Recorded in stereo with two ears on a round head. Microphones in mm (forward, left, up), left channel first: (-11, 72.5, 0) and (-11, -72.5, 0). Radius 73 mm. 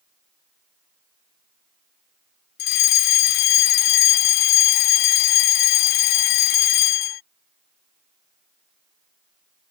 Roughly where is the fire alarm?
Left.